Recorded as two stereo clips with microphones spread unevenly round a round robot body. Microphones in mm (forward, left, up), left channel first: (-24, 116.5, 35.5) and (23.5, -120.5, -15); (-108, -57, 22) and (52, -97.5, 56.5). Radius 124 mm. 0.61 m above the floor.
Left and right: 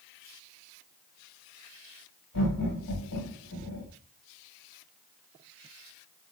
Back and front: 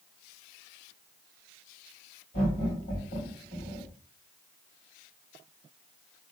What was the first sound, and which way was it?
Laughter, 120° left.